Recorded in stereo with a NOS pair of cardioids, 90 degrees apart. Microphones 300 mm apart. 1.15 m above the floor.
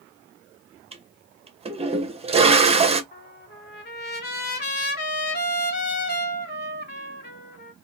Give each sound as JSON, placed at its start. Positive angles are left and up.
{"t": 0.9, "sound": "a toilet flushing", "azimuth_deg": -20, "distance_m": 0.6}
{"t": 3.1, "sound": "a trumpet", "azimuth_deg": 35, "distance_m": 1.3}